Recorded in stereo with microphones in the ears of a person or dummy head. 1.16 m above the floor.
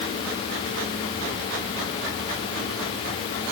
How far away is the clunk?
I don't hear a clunk.